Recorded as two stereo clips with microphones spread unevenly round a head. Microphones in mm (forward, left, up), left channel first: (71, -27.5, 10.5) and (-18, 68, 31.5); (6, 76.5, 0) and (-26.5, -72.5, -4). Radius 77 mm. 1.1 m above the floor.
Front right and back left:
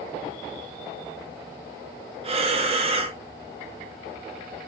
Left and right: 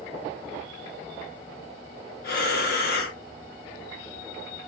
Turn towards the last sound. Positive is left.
turn(degrees=90)